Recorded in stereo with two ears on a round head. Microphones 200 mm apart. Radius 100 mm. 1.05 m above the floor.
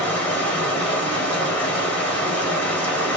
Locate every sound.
0.0 s running water: 5° left (ahead or behind), 1.8 m